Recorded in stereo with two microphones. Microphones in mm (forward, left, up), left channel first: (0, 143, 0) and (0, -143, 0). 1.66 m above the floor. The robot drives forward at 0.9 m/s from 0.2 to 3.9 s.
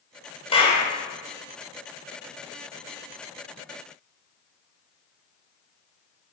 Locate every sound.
0.5 s a clap: 20° left (ahead or behind), 4.5 m